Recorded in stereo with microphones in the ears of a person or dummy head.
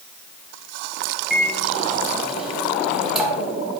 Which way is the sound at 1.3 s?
Centre (ahead or behind).